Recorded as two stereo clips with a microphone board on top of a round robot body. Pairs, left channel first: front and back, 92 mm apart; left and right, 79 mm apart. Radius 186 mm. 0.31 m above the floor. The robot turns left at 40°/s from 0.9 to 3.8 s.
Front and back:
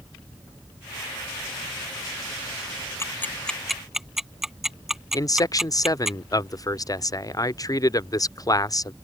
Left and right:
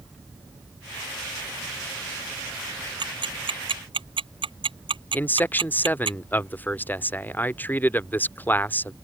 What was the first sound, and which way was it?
Ticking, 60° right.